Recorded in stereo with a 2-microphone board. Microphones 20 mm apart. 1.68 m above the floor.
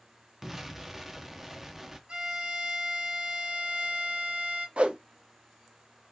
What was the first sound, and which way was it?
An explosion, 15° right (ahead or behind).